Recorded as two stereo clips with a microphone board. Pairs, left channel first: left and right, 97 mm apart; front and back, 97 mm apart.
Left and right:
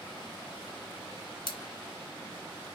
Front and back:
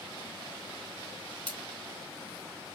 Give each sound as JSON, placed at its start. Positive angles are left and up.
{"t": 1.5, "sound": "scissors", "azimuth_deg": 75, "distance_m": 1.8}